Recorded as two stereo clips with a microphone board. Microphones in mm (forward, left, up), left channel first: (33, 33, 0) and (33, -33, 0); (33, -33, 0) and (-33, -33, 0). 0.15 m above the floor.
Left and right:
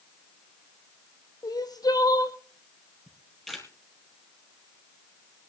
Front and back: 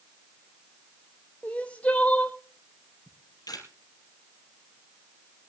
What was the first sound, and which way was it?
Crying, 70° left.